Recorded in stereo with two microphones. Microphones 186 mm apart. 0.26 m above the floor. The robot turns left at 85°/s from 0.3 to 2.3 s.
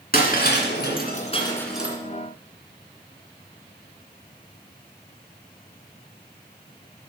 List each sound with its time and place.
0.1 s breaking glass: 50° left (ahead or behind), 2 m; by 2.0 s 15° right (ahead or behind), 2 m